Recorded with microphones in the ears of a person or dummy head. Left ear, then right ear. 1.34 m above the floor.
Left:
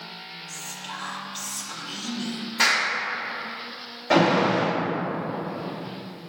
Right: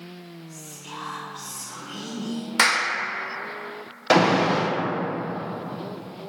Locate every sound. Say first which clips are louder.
0.5 s whispering: left 4 dB; 55° left (ahead or behind), 0.8 m
2.6 s a clap: right 1 dB; 60° right (ahead or behind), 0.5 m
4.1 s an alarm: right 1 dB; 80° right, 0.6 m